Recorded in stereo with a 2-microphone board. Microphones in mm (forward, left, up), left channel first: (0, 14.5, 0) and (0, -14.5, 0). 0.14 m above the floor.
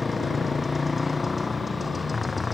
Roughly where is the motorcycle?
Centre.